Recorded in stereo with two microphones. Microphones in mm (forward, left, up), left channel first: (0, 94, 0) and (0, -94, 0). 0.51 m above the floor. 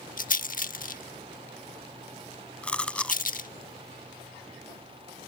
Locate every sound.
0.2 s a rattle: 45° left (ahead or behind)
2.6 s chewing: 5° left (ahead or behind)